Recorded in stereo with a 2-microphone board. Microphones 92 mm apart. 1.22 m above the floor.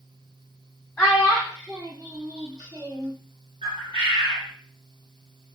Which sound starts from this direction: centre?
A child speaking, at 1.0 s.